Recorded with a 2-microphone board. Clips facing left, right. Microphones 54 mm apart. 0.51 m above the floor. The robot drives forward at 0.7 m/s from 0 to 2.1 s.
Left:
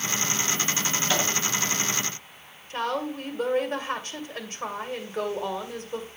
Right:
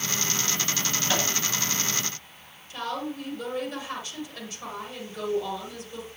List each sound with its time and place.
1.1 s a microwave: 5° right (ahead or behind), 7 m
2.7 s a woman speaking: 35° left (ahead or behind), 2 m